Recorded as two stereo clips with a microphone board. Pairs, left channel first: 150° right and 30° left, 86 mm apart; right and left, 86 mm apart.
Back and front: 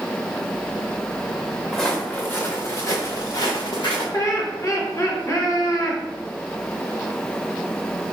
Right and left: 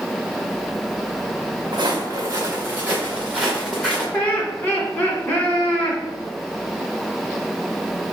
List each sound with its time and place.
1.7 s footsteps: 120° left, 1.2 m; by 4.0 s 175° right, 1.9 m
4.1 s laughter: 145° right, 1.4 m